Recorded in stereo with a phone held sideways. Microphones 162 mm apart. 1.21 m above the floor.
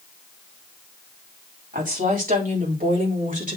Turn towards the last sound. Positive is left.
turn(degrees=-55)  # may be behind; listen again after turning